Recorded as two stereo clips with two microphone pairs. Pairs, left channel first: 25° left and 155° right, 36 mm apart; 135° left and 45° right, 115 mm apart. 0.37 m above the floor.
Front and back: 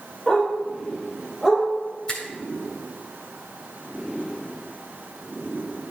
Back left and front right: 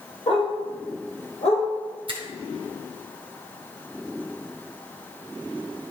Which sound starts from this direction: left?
A dog barking, at 0.3 s.